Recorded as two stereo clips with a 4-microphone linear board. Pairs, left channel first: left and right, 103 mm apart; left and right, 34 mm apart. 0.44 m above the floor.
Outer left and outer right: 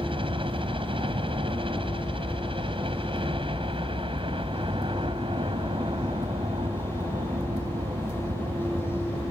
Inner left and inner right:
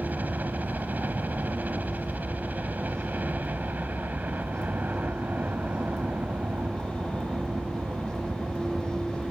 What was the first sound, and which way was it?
A helicopter, 55° right (ahead or behind).